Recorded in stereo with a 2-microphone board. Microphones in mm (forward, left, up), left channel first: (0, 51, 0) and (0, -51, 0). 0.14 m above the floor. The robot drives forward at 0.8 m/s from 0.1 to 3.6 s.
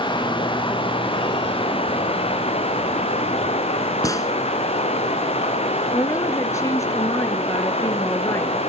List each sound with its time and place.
0.0 s running water: 50° left (ahead or behind), 4.5 m; by 8.7 s 85° left, 3.5 m
4.0 s a gunshot: 35° left (ahead or behind), 1.7 m
5.9 s a woman speaking: 30° left (ahead or behind), 3 m